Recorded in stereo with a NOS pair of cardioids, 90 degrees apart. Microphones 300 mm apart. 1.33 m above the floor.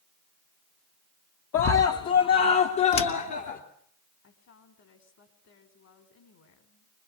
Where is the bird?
I don't hear a bird.